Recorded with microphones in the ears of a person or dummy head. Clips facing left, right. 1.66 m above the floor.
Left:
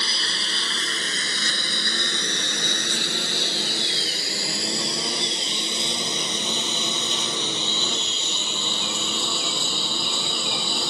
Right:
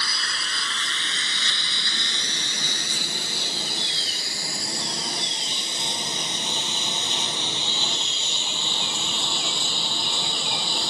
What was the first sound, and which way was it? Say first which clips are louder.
A lawn mower: left 3 dB; 25° left (ahead or behind).